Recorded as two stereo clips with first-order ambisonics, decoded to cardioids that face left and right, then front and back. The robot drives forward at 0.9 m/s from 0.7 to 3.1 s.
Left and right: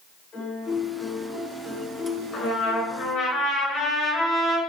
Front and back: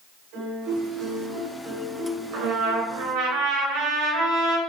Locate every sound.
0.3 s a piano: 145° left, 4 m; by 3.3 s 160° left, 6 m
2.3 s a trumpet: 150° left, 3.5 m; by 4.6 s 155° left, 4 m